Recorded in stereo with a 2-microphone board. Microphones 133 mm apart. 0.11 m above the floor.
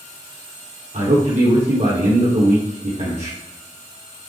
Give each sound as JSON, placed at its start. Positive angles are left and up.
{"t": 0.9, "sound": "a man speaking", "side_deg": -70, "distance_m": 4.5}